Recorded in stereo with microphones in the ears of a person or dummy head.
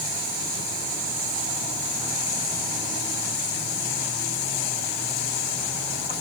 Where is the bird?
I don't hear a bird.